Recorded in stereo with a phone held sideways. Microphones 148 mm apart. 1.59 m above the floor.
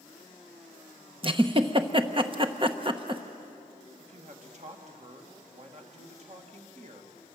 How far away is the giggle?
About 1.0 m.